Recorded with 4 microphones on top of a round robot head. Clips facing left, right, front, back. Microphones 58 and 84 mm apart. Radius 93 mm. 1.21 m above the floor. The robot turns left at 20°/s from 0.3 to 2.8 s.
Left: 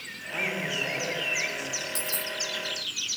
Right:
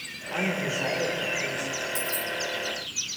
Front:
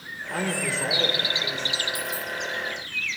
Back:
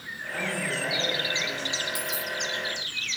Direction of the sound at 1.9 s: 115° left.